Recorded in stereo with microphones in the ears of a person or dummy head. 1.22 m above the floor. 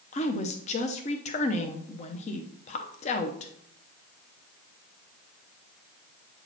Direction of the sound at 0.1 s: 30° left (ahead or behind).